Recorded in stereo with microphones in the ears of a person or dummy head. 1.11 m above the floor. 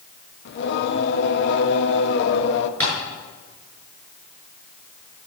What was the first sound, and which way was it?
Singing, 65° left (ahead or behind).